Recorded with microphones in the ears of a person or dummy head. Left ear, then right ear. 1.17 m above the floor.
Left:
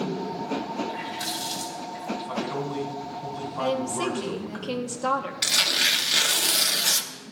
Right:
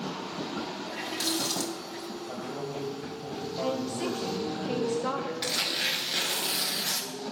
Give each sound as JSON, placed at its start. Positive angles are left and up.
{"t": 0.9, "sound": "a running tap", "side_deg": -75, "distance_m": 1.8}
{"t": 2.2, "sound": "a man speaking", "side_deg": 35, "distance_m": 2.5}
{"t": 3.6, "sound": "a woman speaking", "side_deg": 35, "distance_m": 0.7}
{"t": 5.4, "sound": "tearing paper", "side_deg": 20, "distance_m": 0.6}